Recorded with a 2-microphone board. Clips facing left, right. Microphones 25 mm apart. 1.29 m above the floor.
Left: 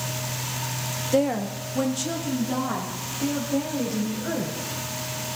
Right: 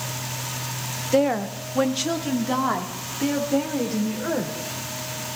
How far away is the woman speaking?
About 0.6 m.